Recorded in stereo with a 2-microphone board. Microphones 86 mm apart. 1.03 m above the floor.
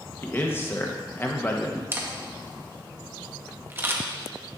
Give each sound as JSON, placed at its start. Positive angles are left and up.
{"t": 0.2, "sound": "a man speaking", "side_deg": 25, "distance_m": 0.9}
{"t": 1.9, "sound": "a camera shutter", "side_deg": -25, "distance_m": 0.8}